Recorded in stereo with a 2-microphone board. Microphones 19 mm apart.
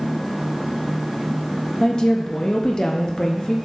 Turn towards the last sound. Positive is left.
turn(degrees=40)  # may be behind; listen again after turning